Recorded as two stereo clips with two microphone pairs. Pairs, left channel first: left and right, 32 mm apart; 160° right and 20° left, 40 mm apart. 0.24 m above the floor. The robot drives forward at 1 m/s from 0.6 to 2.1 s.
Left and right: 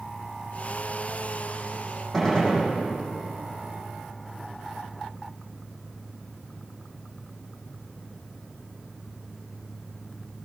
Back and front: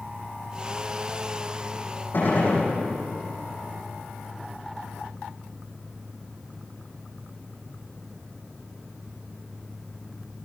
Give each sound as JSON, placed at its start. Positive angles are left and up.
{"t": 2.1, "sound": "a gunshot", "azimuth_deg": 170, "distance_m": 8.5}